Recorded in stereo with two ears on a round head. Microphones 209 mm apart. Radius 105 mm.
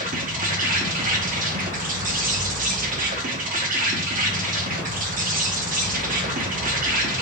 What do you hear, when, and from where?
0.0 s an insect: 35° right (ahead or behind), 0.9 m